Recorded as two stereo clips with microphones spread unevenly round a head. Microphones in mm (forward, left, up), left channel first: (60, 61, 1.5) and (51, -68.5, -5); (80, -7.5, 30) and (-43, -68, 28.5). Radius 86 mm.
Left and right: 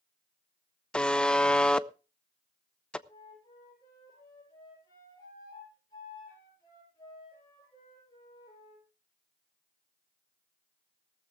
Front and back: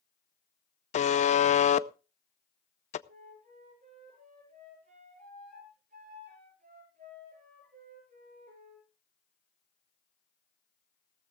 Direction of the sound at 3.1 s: 155° left.